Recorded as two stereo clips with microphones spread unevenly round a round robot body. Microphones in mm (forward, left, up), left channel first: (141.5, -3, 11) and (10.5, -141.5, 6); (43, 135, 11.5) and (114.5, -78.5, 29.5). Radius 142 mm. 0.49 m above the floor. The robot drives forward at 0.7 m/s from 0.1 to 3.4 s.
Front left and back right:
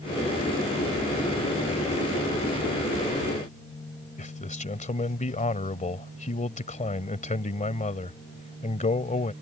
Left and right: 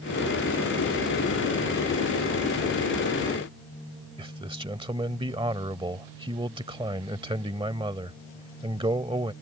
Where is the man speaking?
5° right.